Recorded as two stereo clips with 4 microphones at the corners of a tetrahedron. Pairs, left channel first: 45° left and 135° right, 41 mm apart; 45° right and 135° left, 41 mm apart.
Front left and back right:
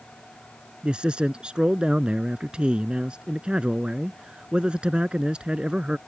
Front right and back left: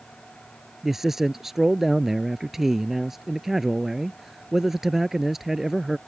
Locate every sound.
0.8 s a man speaking: 155° right